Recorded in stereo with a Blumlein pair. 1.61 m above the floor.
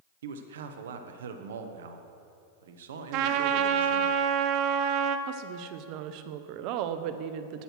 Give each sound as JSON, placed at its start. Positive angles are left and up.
{"t": 0.2, "sound": "a man speaking", "azimuth_deg": -60, "distance_m": 1.0}
{"t": 3.1, "sound": "a trumpet", "azimuth_deg": -40, "distance_m": 0.6}
{"t": 5.3, "sound": "a woman speaking", "azimuth_deg": -40, "distance_m": 0.7}